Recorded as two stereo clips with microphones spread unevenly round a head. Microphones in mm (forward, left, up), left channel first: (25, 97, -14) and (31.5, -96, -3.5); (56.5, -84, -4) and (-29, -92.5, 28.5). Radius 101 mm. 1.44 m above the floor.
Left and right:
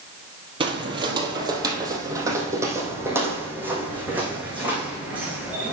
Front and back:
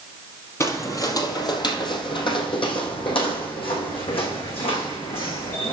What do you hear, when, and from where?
0.6 s footsteps: 70° right, 1.6 m; by 5.7 s 5° right, 4.5 m